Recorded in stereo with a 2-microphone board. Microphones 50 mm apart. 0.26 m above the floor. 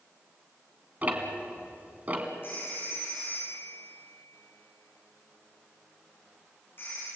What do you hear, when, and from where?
1.0 s ticking: 30° right (ahead or behind), 2.5 m
2.4 s a phone ringing: 45° left (ahead or behind), 10 m